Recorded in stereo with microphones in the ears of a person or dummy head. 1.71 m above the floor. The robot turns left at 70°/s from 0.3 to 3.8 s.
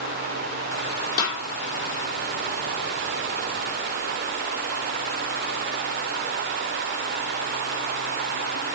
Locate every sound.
1.2 s a snare drum: 20° left (ahead or behind), 4 m; by 1.4 s centre (ahead or behind), 4 m